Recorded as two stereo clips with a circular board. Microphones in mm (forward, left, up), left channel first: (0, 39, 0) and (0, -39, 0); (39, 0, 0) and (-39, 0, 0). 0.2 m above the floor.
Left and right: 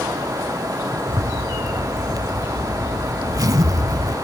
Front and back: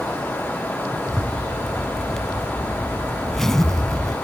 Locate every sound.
1.1 s a zipper: 85° right, 0.8 m